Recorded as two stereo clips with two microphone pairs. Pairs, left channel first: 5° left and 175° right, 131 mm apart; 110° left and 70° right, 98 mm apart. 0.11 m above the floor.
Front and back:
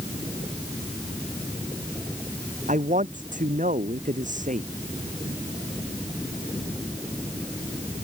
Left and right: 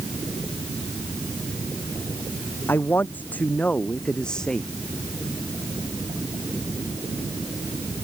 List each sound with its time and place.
2.7 s a man speaking: straight behind; by 4.7 s 165° right